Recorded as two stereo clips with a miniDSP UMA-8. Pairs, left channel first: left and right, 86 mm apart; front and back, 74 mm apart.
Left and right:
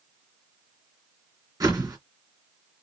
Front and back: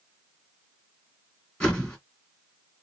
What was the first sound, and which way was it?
A whoosh, 75° right.